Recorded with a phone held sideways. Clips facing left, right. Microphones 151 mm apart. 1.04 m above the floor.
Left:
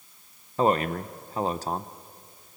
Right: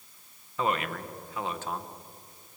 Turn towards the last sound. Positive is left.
turn(degrees=35)  # may be behind; listen again after turning